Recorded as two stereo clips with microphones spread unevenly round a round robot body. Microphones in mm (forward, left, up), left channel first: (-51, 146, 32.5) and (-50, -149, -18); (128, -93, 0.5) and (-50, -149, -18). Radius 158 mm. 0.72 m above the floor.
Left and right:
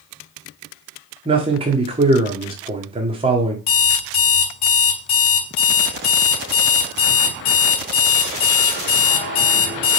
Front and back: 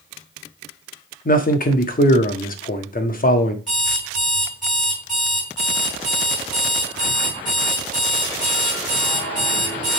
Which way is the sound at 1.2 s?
25° right.